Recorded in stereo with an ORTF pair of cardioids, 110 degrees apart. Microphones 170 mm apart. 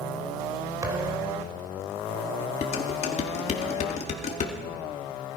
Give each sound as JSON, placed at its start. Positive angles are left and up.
{"t": 0.8, "sound": "a thud", "azimuth_deg": -20, "distance_m": 3.0}
{"t": 2.6, "sound": "dishes clattering", "azimuth_deg": 40, "distance_m": 2.5}